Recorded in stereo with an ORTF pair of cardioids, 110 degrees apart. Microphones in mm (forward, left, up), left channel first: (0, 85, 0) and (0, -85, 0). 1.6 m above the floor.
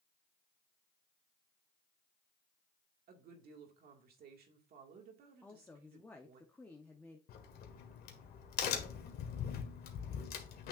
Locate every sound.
3.1 s a woman speaking: 65° right, 2.0 m
5.4 s a woman speaking: 10° left, 0.9 m
7.3 s a crack: 65° left, 1.7 m